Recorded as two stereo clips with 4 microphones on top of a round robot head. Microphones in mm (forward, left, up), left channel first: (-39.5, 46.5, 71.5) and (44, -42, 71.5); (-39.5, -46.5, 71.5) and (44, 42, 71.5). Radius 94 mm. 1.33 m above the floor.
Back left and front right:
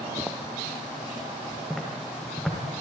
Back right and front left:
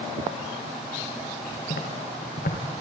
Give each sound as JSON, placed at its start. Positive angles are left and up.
{"t": 1.7, "sound": "footsteps", "azimuth_deg": -140, "distance_m": 6.0}